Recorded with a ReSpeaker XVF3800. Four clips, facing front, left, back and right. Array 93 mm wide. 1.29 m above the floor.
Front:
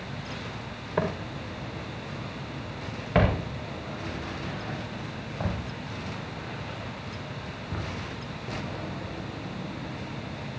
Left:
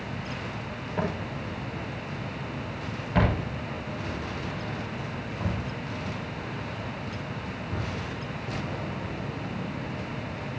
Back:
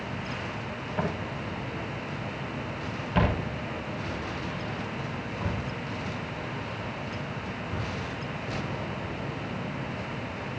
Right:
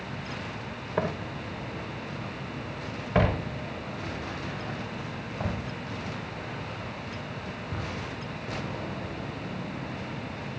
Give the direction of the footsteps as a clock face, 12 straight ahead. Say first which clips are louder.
Right 1 dB, front 3 dB; 1 o'clock.